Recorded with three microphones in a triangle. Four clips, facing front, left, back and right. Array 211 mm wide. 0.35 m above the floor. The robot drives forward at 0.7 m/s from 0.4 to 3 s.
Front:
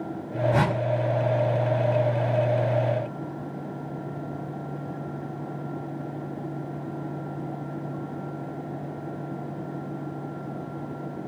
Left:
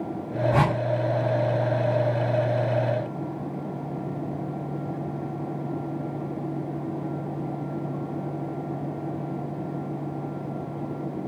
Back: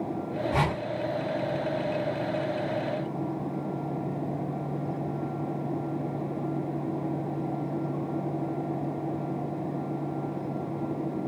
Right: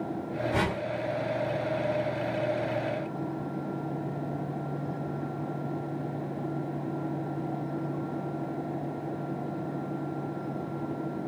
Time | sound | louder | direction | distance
0.5 | a whoosh | left 6 dB, front 3 dB | 70° left | 2.5 m